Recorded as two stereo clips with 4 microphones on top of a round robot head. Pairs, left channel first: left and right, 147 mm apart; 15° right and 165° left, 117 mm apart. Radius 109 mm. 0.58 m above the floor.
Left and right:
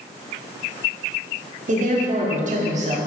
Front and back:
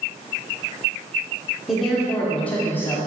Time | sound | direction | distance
1.7 | a woman speaking | 105° right | 2 m